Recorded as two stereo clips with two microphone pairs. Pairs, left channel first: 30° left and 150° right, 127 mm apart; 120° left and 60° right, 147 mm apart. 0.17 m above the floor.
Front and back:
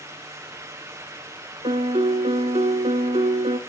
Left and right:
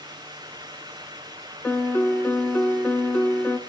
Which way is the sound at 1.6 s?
165° right.